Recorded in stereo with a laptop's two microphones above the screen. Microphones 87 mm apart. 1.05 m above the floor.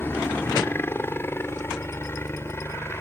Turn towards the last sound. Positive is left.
turn(degrees=30)  # may be behind; listen again after turning